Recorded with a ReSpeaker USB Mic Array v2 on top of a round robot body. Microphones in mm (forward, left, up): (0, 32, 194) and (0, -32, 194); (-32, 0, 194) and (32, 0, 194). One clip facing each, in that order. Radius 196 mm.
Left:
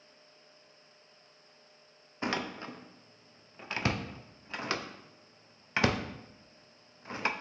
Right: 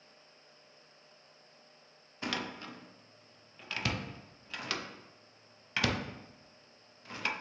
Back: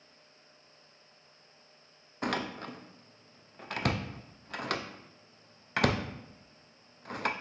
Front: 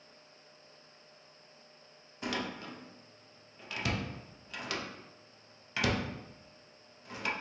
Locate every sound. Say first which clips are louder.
2.2 s a door slam: left 4 dB, back 3 dB; 150° left, 0.5 m